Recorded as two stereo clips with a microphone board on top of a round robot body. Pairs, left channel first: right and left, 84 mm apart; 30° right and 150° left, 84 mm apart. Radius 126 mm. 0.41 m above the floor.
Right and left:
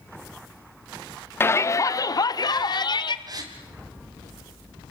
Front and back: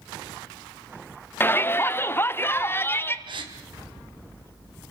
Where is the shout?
65° right, 1.0 m; by 3.2 s 90° right, 1.8 m.